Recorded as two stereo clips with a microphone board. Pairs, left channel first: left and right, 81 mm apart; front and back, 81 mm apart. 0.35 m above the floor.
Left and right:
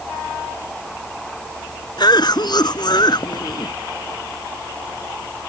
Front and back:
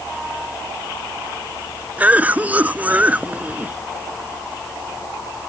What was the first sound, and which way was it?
A cough, 110° left.